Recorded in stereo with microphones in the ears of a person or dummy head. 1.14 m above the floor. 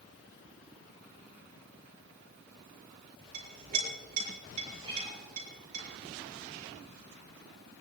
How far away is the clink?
About 5.5 m.